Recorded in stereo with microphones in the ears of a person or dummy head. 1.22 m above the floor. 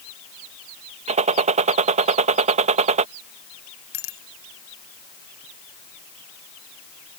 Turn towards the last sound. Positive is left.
turn(degrees=75)  # may be behind; listen again after turning